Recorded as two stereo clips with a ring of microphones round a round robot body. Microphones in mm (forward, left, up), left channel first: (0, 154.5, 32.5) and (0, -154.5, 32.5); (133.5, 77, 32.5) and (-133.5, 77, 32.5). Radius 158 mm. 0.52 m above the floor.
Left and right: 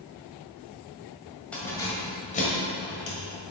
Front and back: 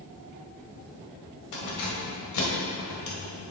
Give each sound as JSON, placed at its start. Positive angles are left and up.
{"t": 1.5, "sound": "keys jangling", "azimuth_deg": 5, "distance_m": 1.8}